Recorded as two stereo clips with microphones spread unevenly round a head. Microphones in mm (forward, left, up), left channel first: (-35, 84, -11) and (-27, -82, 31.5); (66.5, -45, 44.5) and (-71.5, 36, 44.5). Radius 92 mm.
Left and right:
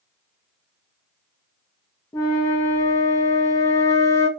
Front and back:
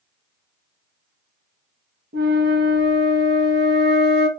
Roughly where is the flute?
Behind.